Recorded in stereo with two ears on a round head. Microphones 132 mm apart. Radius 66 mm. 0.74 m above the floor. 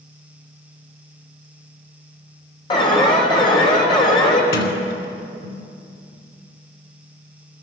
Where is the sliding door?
75° left (ahead or behind), 2.5 m.